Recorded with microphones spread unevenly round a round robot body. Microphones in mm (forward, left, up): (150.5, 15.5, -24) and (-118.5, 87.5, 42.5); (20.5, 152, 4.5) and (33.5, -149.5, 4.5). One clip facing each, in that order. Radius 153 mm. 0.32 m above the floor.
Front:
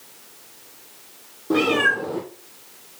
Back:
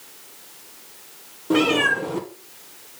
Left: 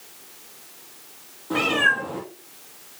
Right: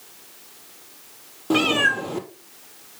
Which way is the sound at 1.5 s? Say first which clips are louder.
Back 1 dB, right 4 dB; 105° right.